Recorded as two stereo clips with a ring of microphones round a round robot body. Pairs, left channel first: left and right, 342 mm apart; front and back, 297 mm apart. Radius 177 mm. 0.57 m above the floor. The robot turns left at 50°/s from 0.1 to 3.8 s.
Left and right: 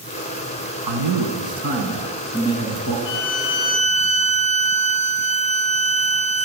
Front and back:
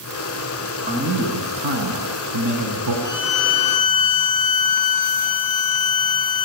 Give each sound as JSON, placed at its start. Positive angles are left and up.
{"t": 0.8, "sound": "a man speaking", "azimuth_deg": -110, "distance_m": 6.0}
{"t": 3.0, "sound": "a violin", "azimuth_deg": 60, "distance_m": 1.5}